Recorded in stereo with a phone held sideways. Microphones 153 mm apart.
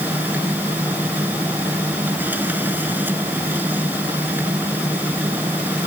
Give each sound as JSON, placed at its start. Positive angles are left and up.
{"t": 0.0, "sound": "a machine running", "side_deg": -10}